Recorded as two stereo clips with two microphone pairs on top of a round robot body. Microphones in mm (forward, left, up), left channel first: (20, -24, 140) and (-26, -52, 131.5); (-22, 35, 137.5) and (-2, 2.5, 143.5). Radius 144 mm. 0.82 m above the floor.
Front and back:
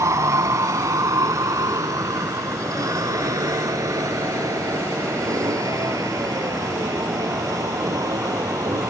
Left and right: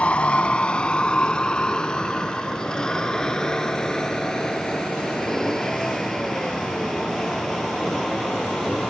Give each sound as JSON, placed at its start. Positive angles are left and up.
{"t": 0.0, "sound": "a vehicle", "azimuth_deg": 180}